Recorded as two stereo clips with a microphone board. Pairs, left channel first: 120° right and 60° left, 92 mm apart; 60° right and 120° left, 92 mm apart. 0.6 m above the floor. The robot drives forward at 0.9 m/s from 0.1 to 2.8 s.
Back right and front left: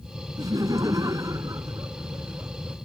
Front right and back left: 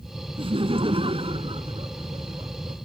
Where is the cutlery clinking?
No cutlery clinking in this recording.